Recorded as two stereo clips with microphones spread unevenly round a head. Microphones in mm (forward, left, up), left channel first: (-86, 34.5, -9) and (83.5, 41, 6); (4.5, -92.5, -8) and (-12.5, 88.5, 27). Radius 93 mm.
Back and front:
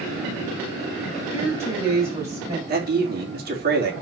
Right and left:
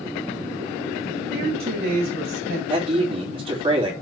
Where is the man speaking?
35° left, 3 m.